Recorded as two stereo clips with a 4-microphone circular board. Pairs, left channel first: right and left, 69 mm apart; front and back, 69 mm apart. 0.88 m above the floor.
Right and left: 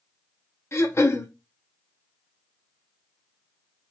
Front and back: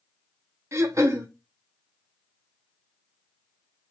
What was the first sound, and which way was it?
Throat clearing, 140° right.